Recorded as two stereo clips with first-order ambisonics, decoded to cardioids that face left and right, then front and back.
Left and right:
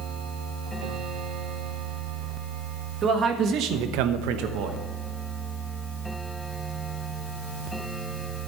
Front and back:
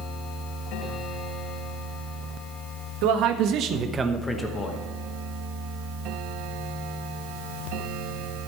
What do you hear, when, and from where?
3.0 s a man speaking: 155° right, 1.5 m; by 4.8 s 55° right, 1.2 m